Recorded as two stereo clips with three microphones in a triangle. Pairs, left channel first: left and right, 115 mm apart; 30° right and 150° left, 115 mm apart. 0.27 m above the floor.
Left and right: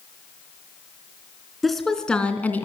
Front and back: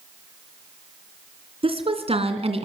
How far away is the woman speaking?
About 3 m.